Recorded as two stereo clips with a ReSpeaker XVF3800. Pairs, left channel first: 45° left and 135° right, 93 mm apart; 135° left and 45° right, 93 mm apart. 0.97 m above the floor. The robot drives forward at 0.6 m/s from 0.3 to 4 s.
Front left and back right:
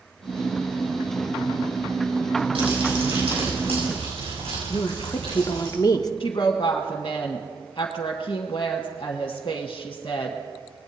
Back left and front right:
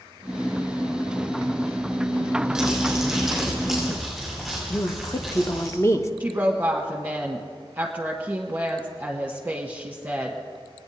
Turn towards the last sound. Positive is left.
turn(degrees=25)